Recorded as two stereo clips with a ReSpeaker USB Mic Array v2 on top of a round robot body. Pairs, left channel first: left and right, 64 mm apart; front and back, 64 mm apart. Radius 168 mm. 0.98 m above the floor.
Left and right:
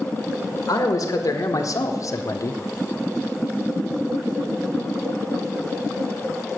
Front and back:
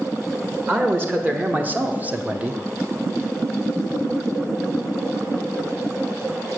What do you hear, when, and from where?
0.7 s a man speaking: 120° left, 1.5 m; by 2.6 s 110° left, 0.7 m